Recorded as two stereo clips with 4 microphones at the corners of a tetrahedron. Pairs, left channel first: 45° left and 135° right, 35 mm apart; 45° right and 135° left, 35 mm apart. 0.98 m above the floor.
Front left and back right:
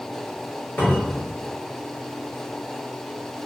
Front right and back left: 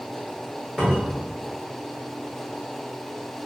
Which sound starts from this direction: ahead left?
A cupboard door, at 0.8 s.